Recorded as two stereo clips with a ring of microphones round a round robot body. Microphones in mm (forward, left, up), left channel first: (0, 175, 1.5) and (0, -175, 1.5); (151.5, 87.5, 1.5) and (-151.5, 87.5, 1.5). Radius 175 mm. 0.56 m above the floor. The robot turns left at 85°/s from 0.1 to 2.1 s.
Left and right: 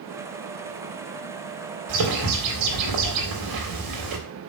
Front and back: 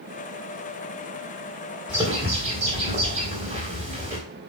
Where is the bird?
90° right, 3.5 m; by 4.2 s 110° right, 3.5 m.